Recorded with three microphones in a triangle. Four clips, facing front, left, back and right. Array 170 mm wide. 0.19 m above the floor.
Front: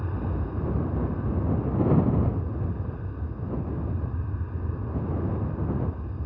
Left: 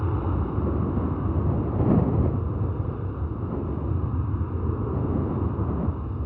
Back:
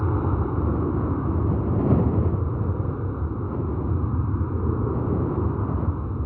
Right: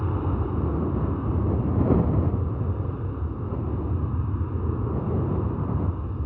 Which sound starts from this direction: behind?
An aircraft, at 0.0 s.